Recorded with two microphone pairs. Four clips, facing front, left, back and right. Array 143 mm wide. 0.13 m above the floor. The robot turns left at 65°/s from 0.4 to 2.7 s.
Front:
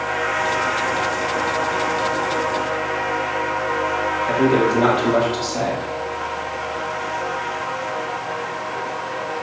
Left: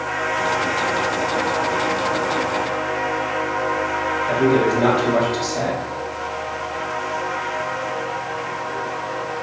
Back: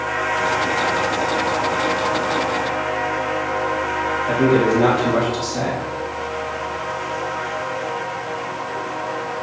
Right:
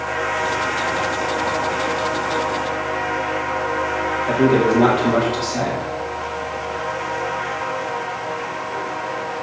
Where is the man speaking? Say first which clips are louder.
Right 2 dB, back 1 dB; 85° right, 3.5 m.